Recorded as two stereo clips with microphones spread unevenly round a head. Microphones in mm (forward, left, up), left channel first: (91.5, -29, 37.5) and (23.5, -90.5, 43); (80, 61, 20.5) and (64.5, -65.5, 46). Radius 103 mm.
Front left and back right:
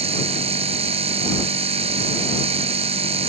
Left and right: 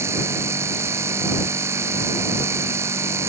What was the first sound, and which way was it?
A machine running, 175° right.